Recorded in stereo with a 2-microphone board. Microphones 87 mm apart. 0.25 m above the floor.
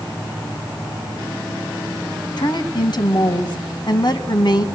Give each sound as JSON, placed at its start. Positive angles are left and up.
{"t": 2.4, "sound": "a woman speaking", "side_deg": 55, "distance_m": 2.0}